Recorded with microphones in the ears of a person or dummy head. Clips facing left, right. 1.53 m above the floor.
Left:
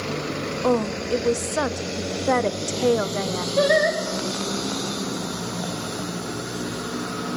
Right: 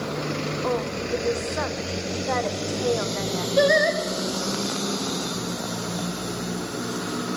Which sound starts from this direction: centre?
Singing, at 3.6 s.